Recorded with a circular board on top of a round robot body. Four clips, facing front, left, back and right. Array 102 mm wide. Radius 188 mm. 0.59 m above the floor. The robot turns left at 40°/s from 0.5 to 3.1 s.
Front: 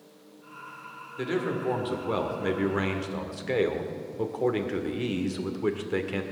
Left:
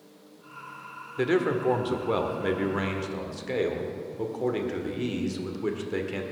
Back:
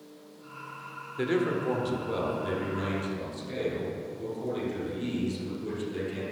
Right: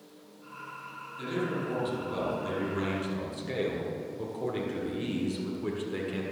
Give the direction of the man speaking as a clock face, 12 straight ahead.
9 o'clock.